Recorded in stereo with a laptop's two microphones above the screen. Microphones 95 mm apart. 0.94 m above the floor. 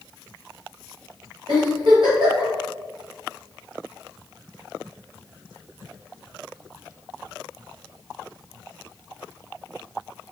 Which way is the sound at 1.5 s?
60° right (ahead or behind).